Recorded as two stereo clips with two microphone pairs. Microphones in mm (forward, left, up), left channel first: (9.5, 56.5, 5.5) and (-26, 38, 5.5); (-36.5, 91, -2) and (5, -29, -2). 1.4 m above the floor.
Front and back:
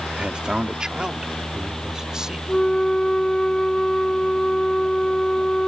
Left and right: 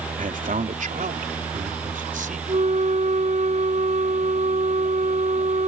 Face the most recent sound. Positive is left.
turn(degrees=-45)